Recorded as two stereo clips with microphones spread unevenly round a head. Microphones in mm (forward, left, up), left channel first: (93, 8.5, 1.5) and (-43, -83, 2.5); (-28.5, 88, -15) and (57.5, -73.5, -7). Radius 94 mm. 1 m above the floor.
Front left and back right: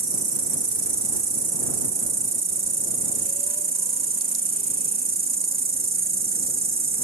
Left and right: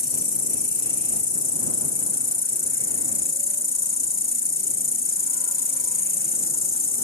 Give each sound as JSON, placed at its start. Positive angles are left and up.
{"t": 0.0, "sound": "an insect", "azimuth_deg": 165}